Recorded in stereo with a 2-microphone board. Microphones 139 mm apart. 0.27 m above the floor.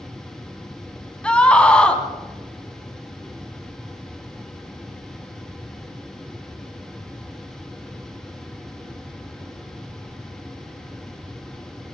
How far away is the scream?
About 2 m.